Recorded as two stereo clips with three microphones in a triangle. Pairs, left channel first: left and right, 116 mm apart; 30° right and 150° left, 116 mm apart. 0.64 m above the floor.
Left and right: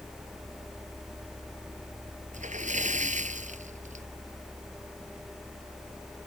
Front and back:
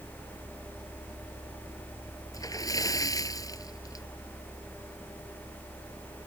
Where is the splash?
90° right.